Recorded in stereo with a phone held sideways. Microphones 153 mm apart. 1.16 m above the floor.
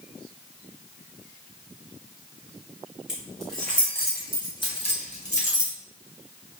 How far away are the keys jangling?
About 1.6 m.